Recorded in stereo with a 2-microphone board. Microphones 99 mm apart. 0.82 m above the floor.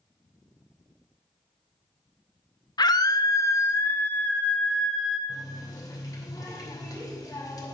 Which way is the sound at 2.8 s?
45° left (ahead or behind).